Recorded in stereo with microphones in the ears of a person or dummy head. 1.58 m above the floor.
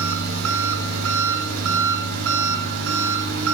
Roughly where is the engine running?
Right.